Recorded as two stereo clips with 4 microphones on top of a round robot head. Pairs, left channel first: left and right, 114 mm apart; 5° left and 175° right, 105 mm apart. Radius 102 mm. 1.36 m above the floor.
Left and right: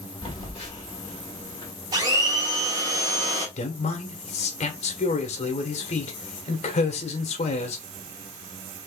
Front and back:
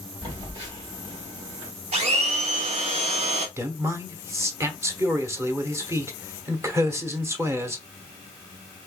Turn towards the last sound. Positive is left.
turn(degrees=120)